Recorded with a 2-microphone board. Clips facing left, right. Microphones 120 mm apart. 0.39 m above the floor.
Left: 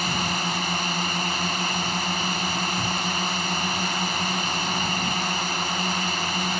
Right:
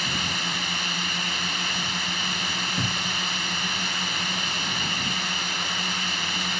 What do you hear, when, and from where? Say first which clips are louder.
0.0 s a drone: left 5 dB; 40° left (ahead or behind)
2.8 s a cupboard door: left 3 dB; 55° right (ahead or behind)